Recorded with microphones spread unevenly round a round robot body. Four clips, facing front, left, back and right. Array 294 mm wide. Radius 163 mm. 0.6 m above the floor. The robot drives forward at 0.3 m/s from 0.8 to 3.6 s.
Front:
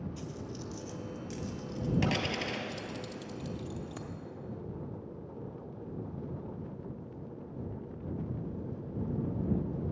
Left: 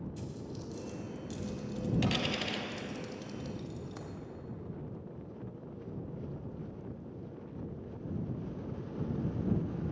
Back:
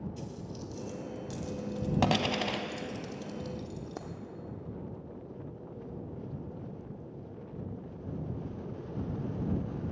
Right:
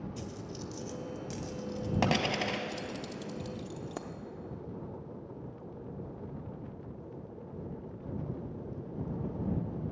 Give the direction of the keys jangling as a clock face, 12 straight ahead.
4 o'clock.